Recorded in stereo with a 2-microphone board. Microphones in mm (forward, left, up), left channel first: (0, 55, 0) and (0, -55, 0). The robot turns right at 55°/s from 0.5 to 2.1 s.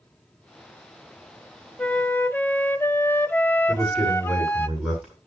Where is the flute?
10° left (ahead or behind), 0.6 m; by 4.7 s 15° left (ahead or behind), 0.6 m.